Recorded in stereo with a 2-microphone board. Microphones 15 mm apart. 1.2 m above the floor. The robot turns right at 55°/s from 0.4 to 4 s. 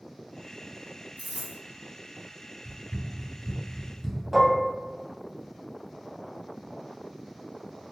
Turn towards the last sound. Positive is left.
turn(degrees=-15)  # may be behind; listen again after turning